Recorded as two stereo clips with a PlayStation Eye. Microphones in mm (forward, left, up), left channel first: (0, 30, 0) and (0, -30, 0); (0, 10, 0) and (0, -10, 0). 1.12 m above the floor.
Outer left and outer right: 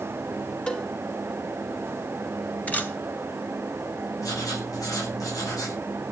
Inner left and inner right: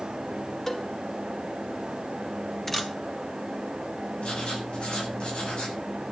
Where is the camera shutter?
25° left (ahead or behind), 2.5 m.